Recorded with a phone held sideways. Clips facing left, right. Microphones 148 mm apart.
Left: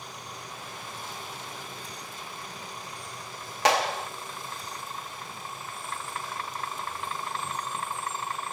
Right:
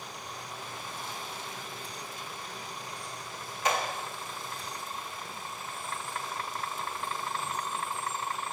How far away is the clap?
About 1.4 m.